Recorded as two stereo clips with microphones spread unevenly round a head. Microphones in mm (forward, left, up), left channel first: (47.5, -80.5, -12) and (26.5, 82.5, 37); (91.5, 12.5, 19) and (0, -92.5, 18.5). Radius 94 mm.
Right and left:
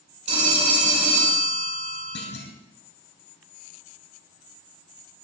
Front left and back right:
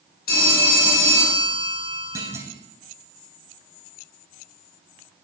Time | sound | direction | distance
0.3 | a phone ringing | 50° left | 5 m
2.1 | a clunk | 65° right | 2.5 m